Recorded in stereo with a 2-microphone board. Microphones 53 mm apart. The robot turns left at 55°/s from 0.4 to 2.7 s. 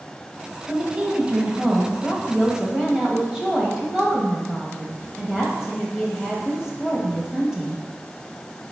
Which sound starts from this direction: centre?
A woman speaking, at 0.7 s.